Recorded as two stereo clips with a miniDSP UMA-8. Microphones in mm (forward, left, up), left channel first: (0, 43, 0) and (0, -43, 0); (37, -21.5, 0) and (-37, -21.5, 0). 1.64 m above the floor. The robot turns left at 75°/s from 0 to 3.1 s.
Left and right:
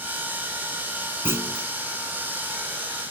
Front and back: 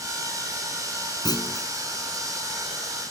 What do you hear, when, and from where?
1.2 s a clunk: 25° right; by 1.7 s 60° right